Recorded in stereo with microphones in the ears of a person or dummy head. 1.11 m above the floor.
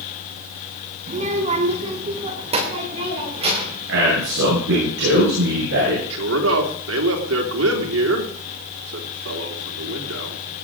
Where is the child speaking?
40° right (ahead or behind), 1.1 m; by 3.8 s 35° right (ahead or behind), 5 m.